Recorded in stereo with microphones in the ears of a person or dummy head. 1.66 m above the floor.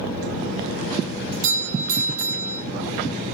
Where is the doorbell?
50° right (ahead or behind), 1.3 m.